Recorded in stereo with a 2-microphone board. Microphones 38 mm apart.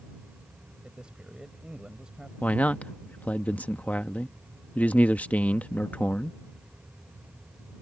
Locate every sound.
0.8 s a man speaking: 25° right (ahead or behind)
2.4 s a man speaking: 45° left (ahead or behind)